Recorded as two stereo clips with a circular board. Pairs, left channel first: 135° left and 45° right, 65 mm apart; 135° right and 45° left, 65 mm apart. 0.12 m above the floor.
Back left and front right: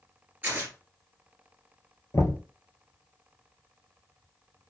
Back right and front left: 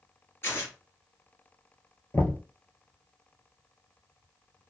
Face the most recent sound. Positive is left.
turn(degrees=170)